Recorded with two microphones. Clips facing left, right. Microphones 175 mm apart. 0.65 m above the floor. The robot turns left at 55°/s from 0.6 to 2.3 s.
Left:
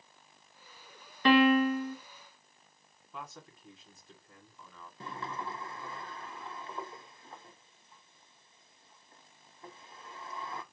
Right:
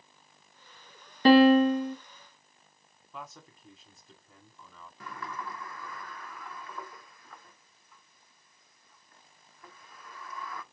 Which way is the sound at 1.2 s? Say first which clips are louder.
Right 5 dB; 115° right.